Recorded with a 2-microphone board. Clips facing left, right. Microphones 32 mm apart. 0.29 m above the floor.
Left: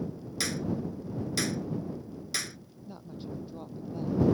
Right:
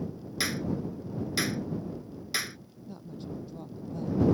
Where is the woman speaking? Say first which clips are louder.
Even; 15° left (ahead or behind).